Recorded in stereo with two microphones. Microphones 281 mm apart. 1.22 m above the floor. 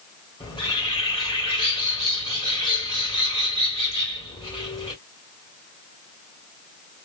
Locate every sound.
0.4 s a bird: 15° left (ahead or behind), 1.6 m